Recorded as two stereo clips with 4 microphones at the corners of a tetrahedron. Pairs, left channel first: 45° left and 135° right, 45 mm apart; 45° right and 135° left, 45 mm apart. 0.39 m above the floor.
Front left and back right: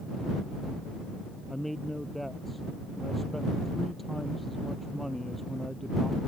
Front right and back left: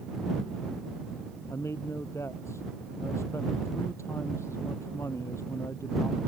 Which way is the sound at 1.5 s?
45° right.